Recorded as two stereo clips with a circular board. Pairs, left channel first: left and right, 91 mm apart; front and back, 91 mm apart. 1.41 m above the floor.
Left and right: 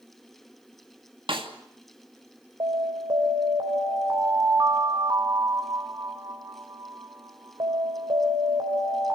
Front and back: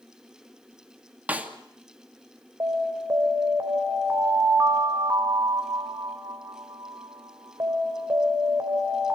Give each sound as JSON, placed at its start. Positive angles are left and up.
{"t": 1.3, "sound": "a snare drum", "azimuth_deg": -105, "distance_m": 2.5}
{"t": 2.6, "sound": "an alarm", "azimuth_deg": -125, "distance_m": 3.5}